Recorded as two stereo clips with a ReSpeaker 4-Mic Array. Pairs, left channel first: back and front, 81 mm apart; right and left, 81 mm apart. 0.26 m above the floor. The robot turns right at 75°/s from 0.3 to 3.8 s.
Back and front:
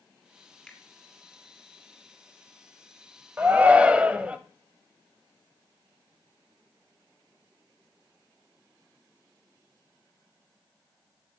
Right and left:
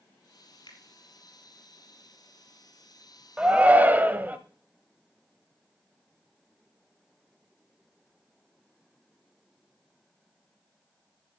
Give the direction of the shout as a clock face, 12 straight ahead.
11 o'clock.